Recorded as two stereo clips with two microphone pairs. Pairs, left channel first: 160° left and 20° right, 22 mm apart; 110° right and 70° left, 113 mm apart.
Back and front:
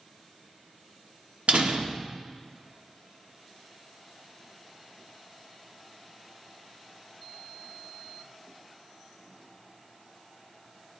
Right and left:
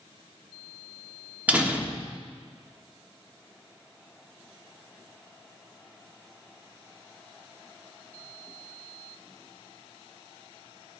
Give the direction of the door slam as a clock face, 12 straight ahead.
12 o'clock.